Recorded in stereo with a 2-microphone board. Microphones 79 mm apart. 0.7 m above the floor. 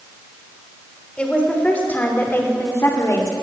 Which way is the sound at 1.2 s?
15° left (ahead or behind).